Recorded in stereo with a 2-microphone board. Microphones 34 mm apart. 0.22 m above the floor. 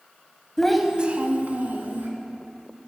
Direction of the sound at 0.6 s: 20° left (ahead or behind).